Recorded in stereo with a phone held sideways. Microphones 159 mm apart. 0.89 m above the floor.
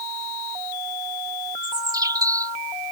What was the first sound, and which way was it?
A bird, 25° right (ahead or behind).